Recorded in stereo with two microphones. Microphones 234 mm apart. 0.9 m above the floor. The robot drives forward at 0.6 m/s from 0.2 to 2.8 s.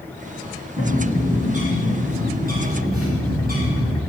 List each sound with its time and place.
0.8 s a bird: 30° right (ahead or behind), 7 m; by 4.0 s 40° right (ahead or behind), 6 m